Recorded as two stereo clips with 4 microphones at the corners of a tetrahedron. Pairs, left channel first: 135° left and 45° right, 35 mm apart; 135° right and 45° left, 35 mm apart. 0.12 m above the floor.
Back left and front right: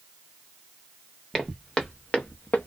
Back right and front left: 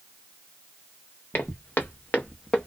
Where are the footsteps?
140° right, 1.0 m; by 2.7 s 160° left, 0.6 m.